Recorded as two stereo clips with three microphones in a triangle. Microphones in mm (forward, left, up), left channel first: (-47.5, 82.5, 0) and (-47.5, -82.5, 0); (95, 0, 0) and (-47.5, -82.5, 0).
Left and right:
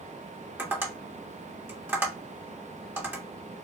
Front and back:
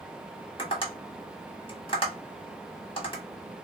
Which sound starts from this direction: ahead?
Tapping, at 0.6 s.